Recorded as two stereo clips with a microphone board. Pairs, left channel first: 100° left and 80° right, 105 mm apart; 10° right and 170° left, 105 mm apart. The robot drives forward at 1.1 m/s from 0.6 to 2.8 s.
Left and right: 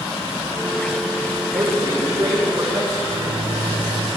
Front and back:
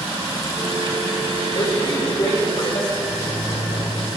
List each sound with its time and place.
1.5 s a man speaking: 20° right, 5 m; by 2.9 s 30° right, 3.5 m
3.0 s a microwave: 35° right, 4 m